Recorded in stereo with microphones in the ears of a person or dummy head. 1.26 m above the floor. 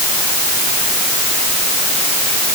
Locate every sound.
Only background noise.